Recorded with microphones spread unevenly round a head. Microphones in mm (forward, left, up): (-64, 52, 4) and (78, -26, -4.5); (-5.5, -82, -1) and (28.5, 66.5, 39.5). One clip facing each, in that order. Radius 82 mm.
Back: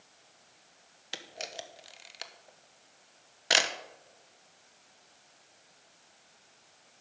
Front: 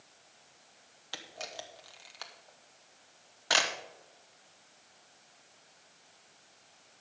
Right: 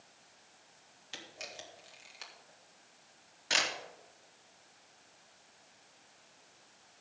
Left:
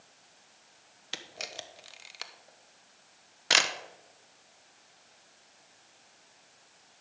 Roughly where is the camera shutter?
Left.